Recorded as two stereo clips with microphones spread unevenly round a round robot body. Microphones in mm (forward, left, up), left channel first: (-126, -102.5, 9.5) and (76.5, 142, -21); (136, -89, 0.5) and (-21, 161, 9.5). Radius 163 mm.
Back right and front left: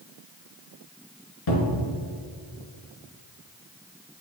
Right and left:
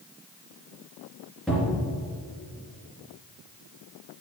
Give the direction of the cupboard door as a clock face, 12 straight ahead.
5 o'clock.